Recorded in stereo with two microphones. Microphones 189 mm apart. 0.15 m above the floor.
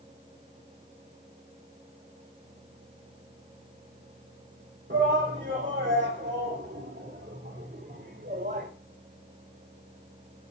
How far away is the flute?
No flute in this recording.